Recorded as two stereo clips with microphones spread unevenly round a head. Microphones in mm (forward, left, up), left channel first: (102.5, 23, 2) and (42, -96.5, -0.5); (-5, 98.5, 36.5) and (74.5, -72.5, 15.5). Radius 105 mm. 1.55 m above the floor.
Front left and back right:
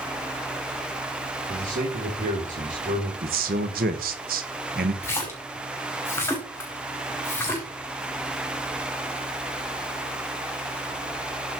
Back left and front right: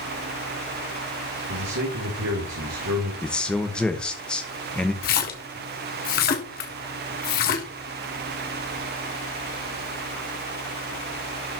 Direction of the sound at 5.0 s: 135° left.